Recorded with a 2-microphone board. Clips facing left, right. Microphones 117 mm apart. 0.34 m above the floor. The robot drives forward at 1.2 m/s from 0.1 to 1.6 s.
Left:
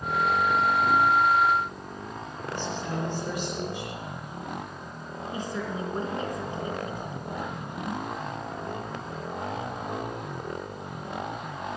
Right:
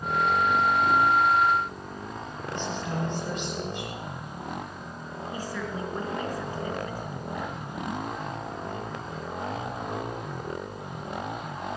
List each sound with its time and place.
2.5 s a woman speaking: 10° left (ahead or behind), 8.5 m
5.3 s a woman speaking: 25° left (ahead or behind), 3.5 m